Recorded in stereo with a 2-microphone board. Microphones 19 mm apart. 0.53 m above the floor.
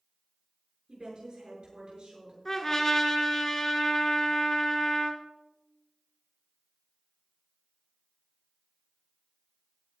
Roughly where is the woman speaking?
Right.